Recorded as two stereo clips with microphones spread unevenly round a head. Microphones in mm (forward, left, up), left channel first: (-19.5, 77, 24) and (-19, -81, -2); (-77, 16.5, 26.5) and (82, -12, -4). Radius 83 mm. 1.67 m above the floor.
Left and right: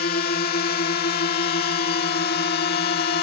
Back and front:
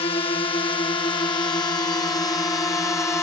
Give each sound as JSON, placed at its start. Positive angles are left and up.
{"t": 0.0, "sound": "a drone", "azimuth_deg": 110}